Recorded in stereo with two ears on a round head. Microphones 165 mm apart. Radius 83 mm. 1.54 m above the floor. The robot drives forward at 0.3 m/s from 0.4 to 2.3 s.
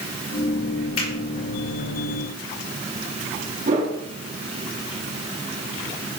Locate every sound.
1.0 s a finger snap: 85° left, 4 m
3.6 s a whoosh: 45° right (ahead or behind), 3.5 m